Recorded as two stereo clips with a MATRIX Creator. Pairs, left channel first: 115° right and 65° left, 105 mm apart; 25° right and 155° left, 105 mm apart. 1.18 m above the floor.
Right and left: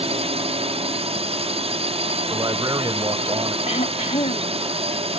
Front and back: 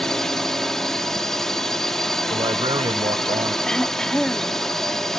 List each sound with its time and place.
0.0 s a drone: 65° left
2.3 s a man speaking: 115° left
3.7 s throat clearing: 105° right